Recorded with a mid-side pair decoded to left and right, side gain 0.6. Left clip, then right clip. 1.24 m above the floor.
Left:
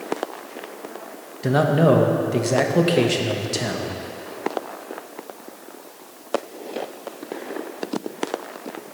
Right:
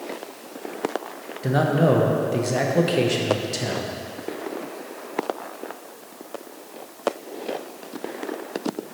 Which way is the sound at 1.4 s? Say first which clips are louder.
Left 3 dB; 15° left.